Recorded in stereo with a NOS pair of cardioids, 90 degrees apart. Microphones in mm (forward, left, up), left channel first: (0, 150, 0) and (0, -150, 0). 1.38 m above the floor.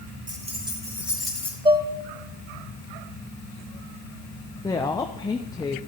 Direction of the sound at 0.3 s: 25° right.